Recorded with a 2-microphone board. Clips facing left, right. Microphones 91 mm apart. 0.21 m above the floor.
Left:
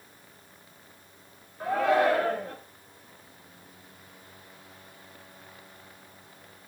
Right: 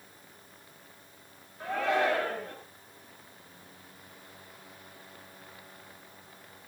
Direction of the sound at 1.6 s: 25° left (ahead or behind).